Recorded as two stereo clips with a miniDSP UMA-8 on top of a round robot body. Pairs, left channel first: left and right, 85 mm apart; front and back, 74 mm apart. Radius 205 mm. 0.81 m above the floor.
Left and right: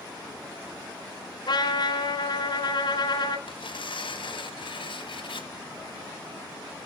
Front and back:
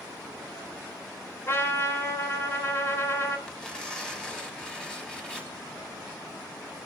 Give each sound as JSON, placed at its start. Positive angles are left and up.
{"t": 1.5, "sound": "a trumpet", "azimuth_deg": 55, "distance_m": 3.5}
{"t": 3.5, "sound": "tearing paper", "azimuth_deg": 80, "distance_m": 4.5}